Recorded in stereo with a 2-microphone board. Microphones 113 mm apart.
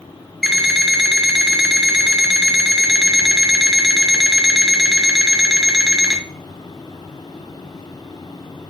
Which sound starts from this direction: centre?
An alarm clock, at 0.4 s.